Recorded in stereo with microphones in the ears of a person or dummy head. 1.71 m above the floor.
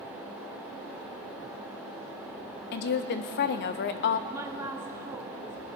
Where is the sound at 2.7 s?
50° left (ahead or behind), 0.5 m.